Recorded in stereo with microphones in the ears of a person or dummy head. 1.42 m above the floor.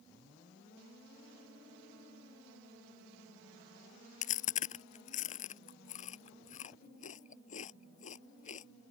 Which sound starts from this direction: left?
Chewing, at 4.2 s.